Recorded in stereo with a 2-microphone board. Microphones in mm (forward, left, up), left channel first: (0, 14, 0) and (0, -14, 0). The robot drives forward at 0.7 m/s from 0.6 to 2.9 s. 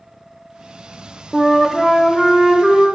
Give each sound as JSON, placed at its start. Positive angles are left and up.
{"t": 1.3, "sound": "a flute", "side_deg": -5, "distance_m": 0.5}